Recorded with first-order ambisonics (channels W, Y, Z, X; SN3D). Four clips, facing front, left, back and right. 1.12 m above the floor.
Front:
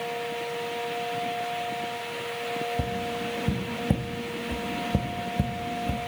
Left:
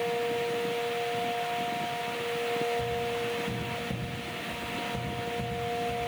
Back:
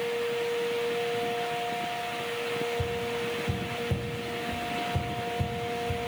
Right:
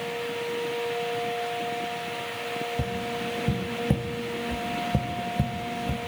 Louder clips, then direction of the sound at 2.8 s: Even, front 1 dB; 40° right.